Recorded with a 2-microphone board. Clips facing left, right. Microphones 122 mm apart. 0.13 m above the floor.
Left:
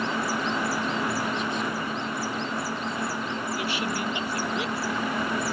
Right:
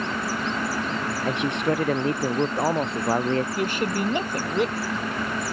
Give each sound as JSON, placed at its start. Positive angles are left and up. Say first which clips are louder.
{"t": 1.2, "sound": "a man speaking", "louder": "right 5 dB", "side_deg": -70}
{"t": 3.5, "sound": "a woman speaking", "louder": "right 4 dB", "side_deg": -45}